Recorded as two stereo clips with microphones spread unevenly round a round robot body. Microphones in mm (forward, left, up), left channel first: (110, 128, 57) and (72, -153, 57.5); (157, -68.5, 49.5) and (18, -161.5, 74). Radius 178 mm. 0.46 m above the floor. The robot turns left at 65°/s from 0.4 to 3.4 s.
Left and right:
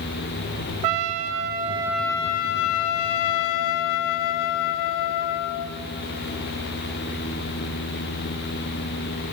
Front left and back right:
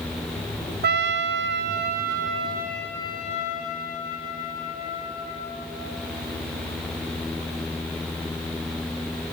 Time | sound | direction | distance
0.8 | a trumpet | 115° right | 0.5 m